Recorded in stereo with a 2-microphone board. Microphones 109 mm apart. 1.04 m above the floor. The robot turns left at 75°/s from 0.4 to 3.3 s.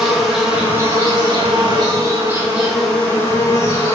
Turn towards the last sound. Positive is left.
turn(degrees=140)